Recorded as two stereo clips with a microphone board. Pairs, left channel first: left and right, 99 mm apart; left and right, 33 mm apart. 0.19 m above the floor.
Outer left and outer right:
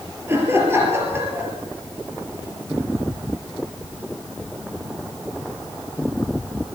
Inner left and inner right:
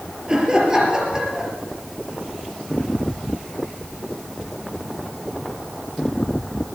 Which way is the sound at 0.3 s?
25° right (ahead or behind).